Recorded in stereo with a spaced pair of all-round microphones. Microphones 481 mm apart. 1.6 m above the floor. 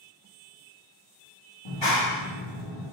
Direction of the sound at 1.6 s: 65° left (ahead or behind).